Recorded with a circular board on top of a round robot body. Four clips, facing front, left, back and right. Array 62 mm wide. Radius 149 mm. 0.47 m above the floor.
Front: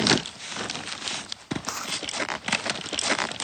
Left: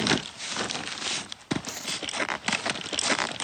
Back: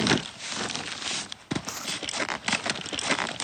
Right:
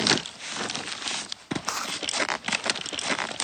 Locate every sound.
1.7 s chewing: 70° right